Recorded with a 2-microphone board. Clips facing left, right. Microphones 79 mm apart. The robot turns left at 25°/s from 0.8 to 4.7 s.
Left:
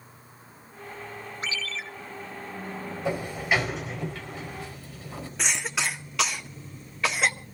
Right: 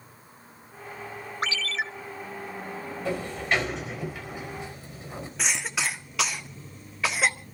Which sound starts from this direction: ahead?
A sliding door, at 3.0 s.